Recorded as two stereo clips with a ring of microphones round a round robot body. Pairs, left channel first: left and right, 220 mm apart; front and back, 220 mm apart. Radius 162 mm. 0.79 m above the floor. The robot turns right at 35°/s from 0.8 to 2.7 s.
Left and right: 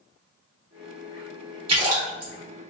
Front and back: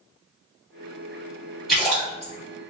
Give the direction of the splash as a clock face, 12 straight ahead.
3 o'clock.